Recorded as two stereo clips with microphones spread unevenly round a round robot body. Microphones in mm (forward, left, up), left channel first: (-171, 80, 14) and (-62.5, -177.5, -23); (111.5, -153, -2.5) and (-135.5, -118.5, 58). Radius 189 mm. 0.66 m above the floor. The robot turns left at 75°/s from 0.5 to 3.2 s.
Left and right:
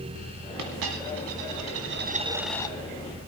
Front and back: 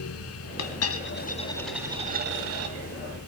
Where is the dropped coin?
15° right, 1.6 m; by 2.7 s straight behind, 1.6 m.